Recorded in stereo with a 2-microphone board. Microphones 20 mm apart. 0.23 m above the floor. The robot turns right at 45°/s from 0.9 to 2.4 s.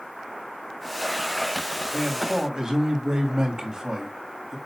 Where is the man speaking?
30° right (ahead or behind), 1.9 m; by 4.6 s 35° right (ahead or behind), 1.9 m.